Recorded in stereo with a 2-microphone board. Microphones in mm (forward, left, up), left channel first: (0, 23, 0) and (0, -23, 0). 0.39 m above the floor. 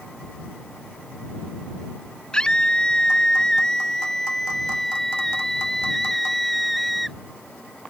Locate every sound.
2.3 s a scream: 20° left (ahead or behind); by 7.2 s centre (ahead or behind)